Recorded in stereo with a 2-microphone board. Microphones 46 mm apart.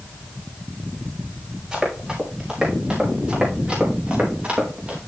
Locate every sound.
1.7 s running footsteps: 15° right (ahead or behind), 6.5 m; by 5.0 s 25° right (ahead or behind), 5 m